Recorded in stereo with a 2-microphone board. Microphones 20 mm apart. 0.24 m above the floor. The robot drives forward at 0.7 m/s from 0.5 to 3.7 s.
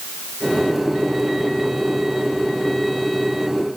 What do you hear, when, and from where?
Only background noise.